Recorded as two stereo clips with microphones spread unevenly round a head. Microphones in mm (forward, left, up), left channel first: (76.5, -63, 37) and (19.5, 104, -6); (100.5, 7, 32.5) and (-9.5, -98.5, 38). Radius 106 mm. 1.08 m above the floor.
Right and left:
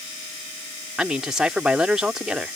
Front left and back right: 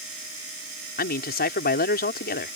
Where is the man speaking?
25° left.